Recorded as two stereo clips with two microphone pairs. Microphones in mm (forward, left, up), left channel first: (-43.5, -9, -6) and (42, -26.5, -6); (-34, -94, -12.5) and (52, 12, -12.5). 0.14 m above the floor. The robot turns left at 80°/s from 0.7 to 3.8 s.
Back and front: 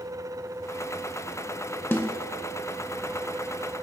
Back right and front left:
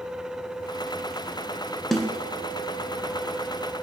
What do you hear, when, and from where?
1.9 s a snare drum: 150° left, 0.5 m; by 2.2 s 130° left, 0.5 m